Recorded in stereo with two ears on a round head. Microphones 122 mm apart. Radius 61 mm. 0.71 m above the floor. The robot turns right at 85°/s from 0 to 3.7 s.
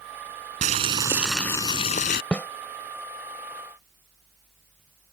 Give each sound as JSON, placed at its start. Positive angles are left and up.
{"t": 0.6, "sound": "boiling", "azimuth_deg": -60}
{"t": 2.3, "sound": "a snare drum", "side_deg": 5}